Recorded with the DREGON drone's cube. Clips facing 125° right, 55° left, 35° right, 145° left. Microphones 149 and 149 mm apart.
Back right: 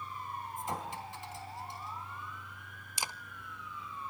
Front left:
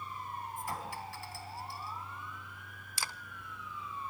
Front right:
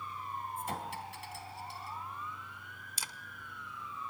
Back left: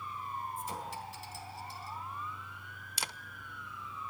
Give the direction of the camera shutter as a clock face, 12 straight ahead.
6 o'clock.